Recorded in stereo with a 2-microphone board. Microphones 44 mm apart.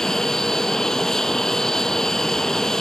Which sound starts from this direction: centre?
An aircraft, at 0.0 s.